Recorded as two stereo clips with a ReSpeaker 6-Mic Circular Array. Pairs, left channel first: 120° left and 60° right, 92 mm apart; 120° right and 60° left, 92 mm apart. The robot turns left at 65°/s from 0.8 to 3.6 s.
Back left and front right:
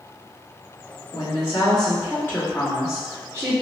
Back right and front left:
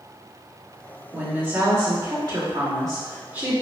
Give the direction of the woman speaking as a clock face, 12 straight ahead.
7 o'clock.